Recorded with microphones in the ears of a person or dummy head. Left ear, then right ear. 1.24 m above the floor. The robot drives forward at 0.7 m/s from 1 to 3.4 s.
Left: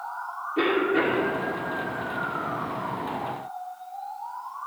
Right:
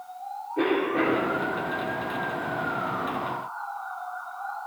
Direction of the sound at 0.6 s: 35° left (ahead or behind).